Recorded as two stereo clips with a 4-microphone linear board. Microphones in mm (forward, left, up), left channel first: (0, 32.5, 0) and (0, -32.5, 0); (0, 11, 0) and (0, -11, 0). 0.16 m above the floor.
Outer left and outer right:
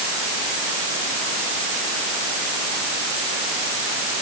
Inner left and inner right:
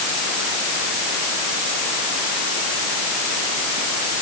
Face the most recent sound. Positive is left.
No sound to turn to.